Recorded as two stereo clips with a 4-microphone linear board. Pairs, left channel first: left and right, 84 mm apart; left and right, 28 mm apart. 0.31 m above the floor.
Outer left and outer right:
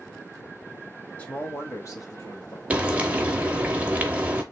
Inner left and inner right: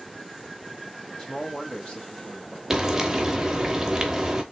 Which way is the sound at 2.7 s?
15° right (ahead or behind).